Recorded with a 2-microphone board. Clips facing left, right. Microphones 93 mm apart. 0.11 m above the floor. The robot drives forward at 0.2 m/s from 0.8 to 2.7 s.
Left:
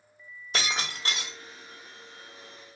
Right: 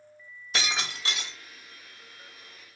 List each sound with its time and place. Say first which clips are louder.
0.5 s breaking glass: even; 40° left (ahead or behind), 1.1 m